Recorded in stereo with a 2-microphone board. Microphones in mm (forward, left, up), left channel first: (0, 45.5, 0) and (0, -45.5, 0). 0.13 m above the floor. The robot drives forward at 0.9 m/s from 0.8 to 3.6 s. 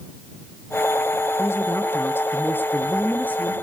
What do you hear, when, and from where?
1.4 s a woman speaking: 25° left (ahead or behind), 1.8 m; by 3.5 s 20° left (ahead or behind), 2.5 m